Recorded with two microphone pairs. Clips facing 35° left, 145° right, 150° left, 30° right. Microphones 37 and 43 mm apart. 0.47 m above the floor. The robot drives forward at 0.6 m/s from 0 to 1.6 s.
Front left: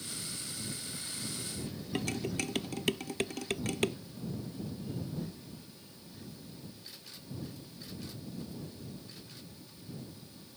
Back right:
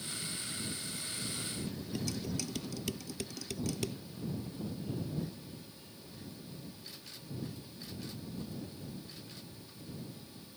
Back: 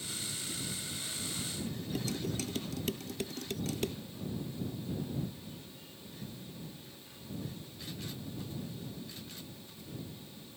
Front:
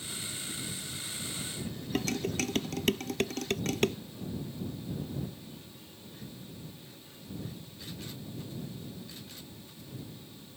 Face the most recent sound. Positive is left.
turn(degrees=0)